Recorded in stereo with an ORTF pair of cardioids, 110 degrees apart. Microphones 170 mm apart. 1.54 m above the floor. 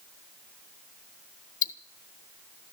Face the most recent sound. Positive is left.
turn(degrees=50)